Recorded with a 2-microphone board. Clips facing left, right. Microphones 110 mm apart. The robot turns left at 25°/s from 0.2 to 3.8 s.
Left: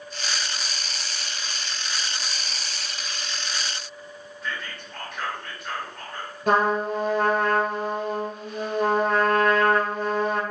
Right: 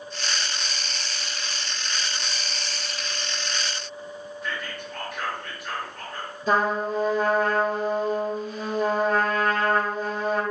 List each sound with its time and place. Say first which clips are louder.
4.4 s whispering: even; centre (ahead or behind), 2.0 m
6.5 s a trumpet: left 2 dB; 70° left (ahead or behind), 1.0 m